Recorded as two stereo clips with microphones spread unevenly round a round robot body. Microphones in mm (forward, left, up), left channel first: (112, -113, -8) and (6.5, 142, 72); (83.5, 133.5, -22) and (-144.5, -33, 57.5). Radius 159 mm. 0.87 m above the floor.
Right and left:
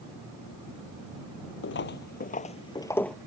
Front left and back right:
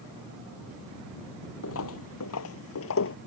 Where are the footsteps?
15° right; by 3.2 s 55° left.